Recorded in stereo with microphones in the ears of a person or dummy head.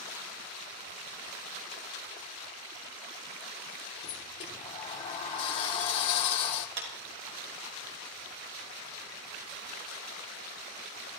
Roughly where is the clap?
Right.